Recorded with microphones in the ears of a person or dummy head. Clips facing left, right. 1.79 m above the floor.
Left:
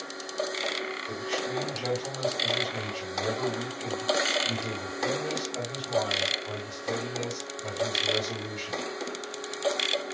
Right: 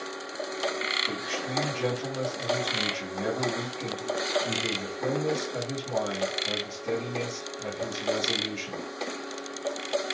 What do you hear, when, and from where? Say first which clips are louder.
1.1 s a man speaking: left 4 dB; 65° right (ahead or behind), 1.6 m